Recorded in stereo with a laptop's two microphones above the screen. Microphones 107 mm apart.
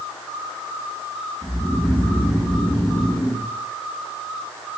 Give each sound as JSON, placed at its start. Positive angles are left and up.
{"t": 1.4, "sound": "snoring", "side_deg": 15, "distance_m": 4.5}